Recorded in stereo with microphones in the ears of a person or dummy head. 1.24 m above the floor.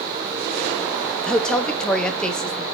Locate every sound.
1.3 s a woman speaking: 10° left (ahead or behind), 0.6 m